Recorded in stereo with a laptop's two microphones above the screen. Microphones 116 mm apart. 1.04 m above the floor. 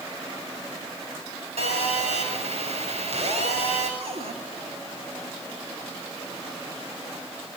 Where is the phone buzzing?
80° right, 6.5 m.